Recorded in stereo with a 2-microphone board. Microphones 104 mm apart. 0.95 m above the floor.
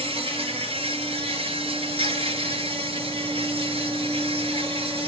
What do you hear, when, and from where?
0.0 s an insect: 65° right (ahead or behind), 4 m